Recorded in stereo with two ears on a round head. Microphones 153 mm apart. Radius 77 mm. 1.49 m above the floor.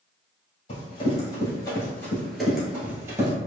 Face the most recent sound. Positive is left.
turn(degrees=-20)  # may be behind; listen again after turning